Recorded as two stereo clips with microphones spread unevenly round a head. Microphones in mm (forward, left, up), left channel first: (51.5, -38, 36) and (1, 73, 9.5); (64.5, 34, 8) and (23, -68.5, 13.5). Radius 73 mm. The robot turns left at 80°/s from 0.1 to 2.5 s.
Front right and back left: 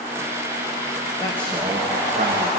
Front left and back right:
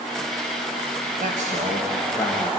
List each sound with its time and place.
1.2 s a man speaking: 125° right, 1.6 m; by 2.5 s 130° left, 1.6 m